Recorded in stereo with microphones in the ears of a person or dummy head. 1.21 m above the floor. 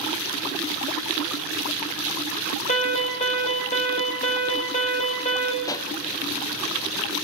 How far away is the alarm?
About 8.5 m.